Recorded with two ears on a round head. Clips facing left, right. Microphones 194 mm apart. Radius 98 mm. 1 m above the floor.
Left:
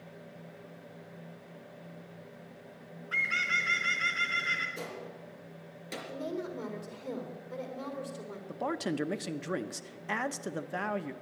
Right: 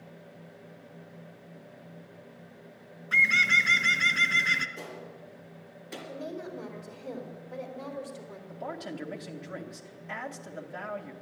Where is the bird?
60° right (ahead or behind), 1.2 m.